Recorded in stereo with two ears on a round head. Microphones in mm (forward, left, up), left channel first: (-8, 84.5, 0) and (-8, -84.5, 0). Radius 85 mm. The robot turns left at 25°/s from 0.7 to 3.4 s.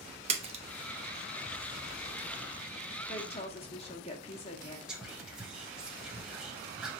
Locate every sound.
0.3 s a splash: 35° right (ahead or behind), 0.7 m
3.1 s a woman speaking: 35° left (ahead or behind), 0.9 m
4.9 s whispering: 5° right (ahead or behind), 1.3 m